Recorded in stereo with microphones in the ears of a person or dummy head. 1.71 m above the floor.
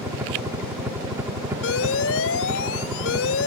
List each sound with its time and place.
0.0 s a helicopter: 15° right (ahead or behind)
1.6 s an alarm: 85° left